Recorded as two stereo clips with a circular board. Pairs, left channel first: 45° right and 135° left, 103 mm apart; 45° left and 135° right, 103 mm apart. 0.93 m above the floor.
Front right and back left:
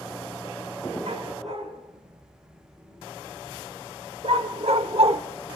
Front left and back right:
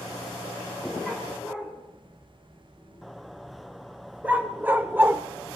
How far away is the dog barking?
About 4.5 m.